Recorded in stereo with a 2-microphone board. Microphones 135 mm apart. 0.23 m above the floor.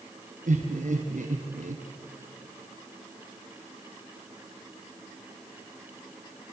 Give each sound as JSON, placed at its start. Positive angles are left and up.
{"t": 0.5, "sound": "laughter", "side_deg": -70, "distance_m": 3.0}